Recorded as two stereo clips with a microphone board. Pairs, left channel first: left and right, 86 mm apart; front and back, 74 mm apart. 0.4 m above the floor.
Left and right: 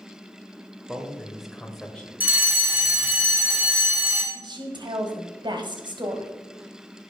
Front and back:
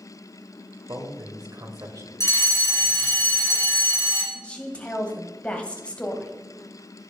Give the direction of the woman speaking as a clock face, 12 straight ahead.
2 o'clock.